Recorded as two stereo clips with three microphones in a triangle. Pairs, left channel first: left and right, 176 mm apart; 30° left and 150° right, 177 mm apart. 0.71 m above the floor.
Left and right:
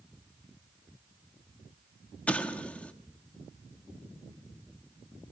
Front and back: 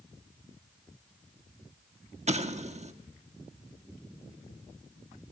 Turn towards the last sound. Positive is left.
turn(degrees=170)